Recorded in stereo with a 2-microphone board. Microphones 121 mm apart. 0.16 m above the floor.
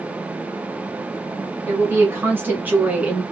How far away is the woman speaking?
About 1.5 m.